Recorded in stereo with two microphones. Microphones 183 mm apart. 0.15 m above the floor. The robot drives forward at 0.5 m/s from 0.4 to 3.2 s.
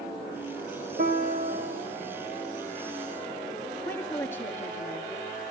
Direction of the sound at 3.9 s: 10° left (ahead or behind).